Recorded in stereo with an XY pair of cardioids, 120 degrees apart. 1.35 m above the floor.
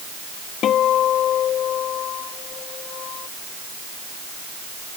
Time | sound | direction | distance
0.6 | a guitar | 55° left | ?